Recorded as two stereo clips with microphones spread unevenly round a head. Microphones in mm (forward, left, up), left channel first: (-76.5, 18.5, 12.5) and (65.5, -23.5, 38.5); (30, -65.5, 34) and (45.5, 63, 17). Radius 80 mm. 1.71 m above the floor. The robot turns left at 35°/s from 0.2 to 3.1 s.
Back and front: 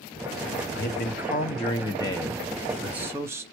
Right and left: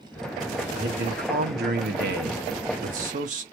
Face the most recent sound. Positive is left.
turn(degrees=55)